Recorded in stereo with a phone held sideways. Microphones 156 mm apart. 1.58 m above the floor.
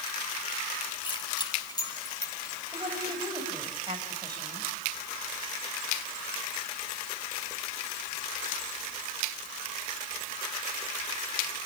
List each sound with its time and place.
1.0 s keys jangling: 30° left (ahead or behind), 5.5 m; by 2.6 s 20° left (ahead or behind), 4.5 m
2.7 s a woman speaking: 30° right (ahead or behind), 7.5 m